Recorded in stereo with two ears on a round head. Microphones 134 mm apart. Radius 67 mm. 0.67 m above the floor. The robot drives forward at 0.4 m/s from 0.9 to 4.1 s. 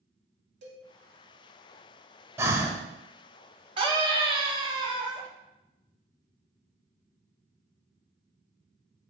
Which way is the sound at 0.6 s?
50° right (ahead or behind).